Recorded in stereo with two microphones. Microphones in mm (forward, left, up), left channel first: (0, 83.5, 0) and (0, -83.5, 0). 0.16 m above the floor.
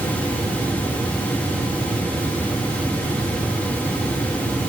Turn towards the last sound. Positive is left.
No sound to turn to.